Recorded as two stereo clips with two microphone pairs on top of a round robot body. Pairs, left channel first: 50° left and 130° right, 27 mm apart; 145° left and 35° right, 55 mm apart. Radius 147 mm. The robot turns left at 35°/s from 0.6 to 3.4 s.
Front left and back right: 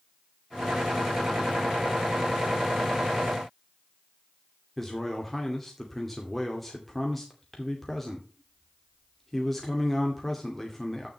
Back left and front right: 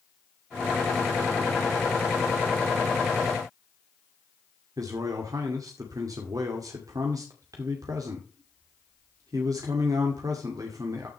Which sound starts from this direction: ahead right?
A man speaking, at 4.8 s.